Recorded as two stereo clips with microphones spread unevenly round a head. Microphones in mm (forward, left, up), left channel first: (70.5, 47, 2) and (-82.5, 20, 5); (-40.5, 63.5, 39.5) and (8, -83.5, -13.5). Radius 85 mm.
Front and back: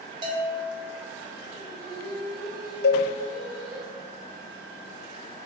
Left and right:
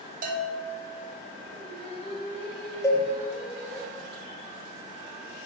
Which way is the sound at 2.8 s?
30° left.